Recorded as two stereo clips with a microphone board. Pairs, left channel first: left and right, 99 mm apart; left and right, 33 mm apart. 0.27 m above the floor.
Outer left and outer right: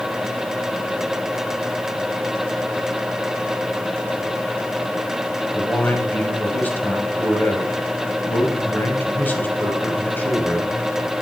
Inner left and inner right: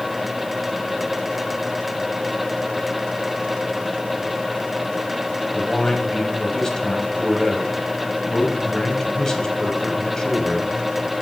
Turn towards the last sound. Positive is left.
turn(degrees=20)  # may be behind; listen again after turning